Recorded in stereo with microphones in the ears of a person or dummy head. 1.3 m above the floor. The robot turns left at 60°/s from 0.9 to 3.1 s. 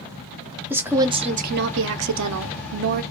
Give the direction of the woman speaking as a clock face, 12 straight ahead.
12 o'clock.